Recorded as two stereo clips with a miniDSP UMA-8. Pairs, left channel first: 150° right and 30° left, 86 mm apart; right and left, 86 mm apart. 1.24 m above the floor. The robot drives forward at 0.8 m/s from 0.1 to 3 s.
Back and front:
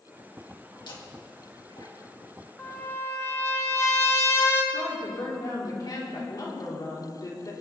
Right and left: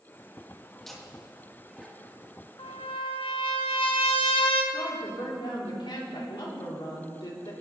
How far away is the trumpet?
About 1.4 m.